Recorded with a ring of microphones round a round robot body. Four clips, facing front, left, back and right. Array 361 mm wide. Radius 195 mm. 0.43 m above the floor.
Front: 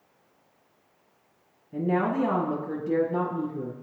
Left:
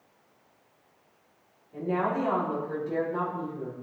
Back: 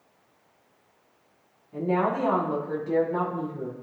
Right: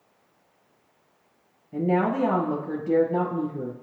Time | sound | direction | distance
1.7 | a woman speaking | 60° right | 3 m